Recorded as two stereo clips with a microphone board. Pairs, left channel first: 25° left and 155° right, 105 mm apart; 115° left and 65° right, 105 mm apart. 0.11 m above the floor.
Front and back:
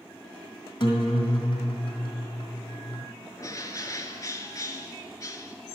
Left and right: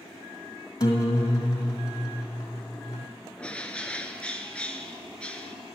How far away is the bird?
About 0.6 m.